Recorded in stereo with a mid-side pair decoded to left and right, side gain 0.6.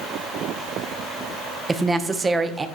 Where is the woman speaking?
20° right, 0.7 m.